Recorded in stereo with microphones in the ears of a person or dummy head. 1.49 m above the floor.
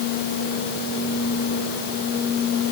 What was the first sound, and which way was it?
Only background noise.